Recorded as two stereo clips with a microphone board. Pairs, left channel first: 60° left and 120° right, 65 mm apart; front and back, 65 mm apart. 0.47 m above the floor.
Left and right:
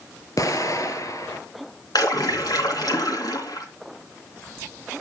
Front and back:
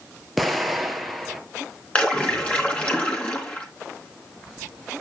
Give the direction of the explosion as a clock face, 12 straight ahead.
9 o'clock.